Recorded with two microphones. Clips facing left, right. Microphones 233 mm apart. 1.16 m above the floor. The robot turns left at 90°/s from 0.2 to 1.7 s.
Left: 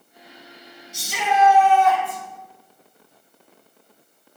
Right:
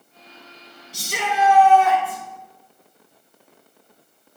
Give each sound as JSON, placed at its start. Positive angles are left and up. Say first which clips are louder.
{"t": 0.9, "sound": "a shout", "louder": "left 3 dB", "azimuth_deg": -35, "distance_m": 4.5}